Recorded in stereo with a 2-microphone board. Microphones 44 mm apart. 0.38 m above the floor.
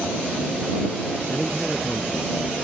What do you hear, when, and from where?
1.3 s a man speaking: 5° left (ahead or behind)